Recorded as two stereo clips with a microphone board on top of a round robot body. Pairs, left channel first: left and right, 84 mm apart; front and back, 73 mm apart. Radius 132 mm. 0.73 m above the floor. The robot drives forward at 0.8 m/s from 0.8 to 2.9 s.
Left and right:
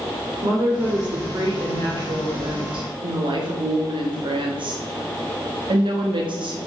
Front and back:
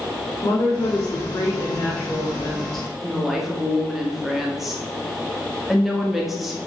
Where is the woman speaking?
40° right, 2 m; by 6.6 s 90° right, 1.5 m.